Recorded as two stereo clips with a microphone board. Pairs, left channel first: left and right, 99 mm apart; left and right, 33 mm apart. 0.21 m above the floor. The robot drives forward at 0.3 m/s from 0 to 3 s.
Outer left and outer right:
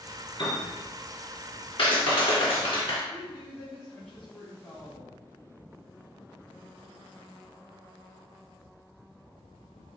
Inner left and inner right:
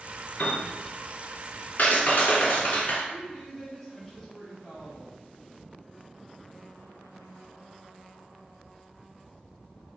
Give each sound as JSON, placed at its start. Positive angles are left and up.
{"t": 0.4, "sound": "a piano", "side_deg": 55, "distance_m": 2.0}
{"t": 1.8, "sound": "a clap", "side_deg": 65, "distance_m": 1.6}
{"t": 3.1, "sound": "a woman speaking", "side_deg": 15, "distance_m": 2.0}